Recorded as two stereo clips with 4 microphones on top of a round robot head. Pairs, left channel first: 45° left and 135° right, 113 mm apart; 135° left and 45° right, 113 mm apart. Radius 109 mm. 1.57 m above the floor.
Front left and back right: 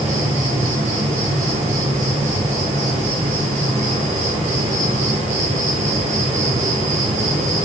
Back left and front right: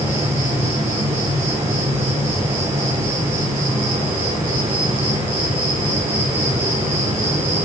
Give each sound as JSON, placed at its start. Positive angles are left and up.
{"t": 0.0, "sound": "an insect", "azimuth_deg": -115, "distance_m": 4.5}